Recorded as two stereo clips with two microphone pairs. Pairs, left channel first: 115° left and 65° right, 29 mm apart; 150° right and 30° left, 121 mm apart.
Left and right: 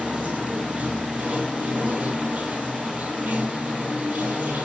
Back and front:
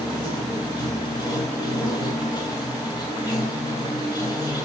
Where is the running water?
95° right, 1.9 m.